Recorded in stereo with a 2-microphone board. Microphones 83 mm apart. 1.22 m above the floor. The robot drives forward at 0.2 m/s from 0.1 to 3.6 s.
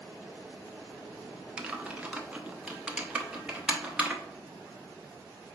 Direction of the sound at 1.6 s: 15° right (ahead or behind).